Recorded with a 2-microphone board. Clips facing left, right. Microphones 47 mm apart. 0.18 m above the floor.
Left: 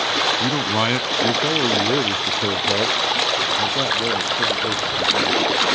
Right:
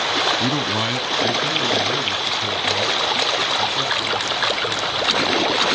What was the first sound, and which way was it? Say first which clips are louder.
A man speaking: left 1 dB; 5° right (ahead or behind).